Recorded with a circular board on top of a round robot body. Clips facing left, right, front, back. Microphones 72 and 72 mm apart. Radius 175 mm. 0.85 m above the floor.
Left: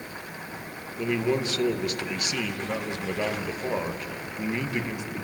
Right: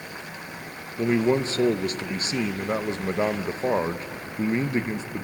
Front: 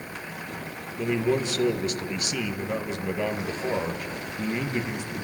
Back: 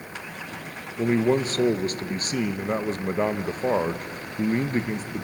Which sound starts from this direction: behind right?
A man speaking, at 1.0 s.